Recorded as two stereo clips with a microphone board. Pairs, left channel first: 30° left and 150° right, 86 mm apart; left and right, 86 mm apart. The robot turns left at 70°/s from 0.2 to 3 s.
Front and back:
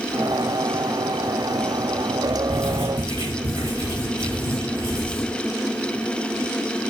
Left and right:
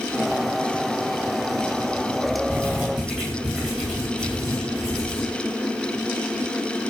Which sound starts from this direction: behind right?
Writing, at 2.5 s.